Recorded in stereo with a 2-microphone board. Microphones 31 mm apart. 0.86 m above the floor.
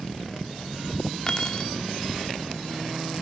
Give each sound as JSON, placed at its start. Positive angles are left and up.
{"t": 1.3, "sound": "keys jangling", "side_deg": 30, "distance_m": 1.0}